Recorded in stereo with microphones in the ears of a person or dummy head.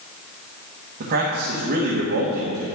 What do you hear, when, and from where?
1.0 s a man speaking: 60° right (ahead or behind), 1.5 m